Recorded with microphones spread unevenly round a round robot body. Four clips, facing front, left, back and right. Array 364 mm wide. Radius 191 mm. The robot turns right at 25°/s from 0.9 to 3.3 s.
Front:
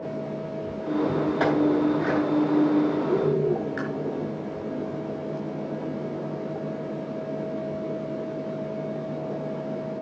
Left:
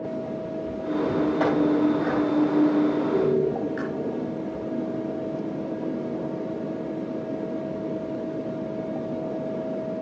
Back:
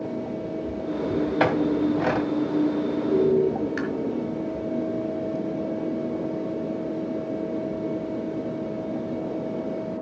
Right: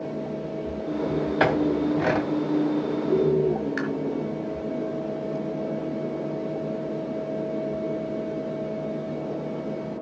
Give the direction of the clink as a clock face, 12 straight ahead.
5 o'clock.